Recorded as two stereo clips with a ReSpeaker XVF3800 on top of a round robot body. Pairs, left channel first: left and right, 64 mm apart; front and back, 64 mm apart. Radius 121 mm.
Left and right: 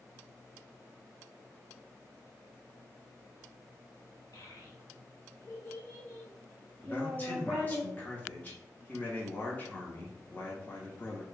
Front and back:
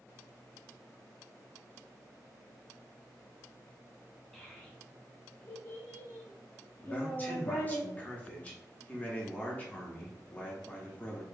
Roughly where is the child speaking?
Left.